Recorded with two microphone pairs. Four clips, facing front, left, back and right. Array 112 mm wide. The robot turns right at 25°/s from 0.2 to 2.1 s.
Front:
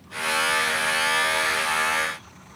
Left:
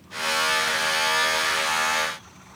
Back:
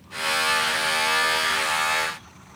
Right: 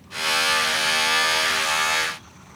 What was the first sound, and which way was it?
Only background noise.